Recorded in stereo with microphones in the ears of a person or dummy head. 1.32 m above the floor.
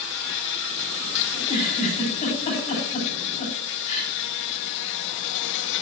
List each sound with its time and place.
0.0 s an insect: 60° left (ahead or behind), 0.7 m
1.3 s a giggle: 40° left (ahead or behind), 9.5 m